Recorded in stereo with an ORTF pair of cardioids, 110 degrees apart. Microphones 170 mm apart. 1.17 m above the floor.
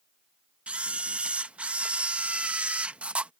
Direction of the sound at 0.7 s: 10° right.